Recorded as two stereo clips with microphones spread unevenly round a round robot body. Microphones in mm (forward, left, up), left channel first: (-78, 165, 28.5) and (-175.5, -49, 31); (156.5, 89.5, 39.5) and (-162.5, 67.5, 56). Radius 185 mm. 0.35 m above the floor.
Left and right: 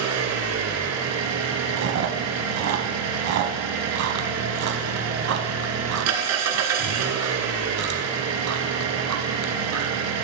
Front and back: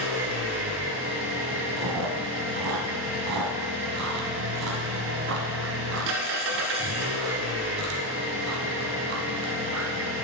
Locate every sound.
0.0 s an engine running: 120° right, 1.1 m
1.8 s chewing: 125° right, 0.8 m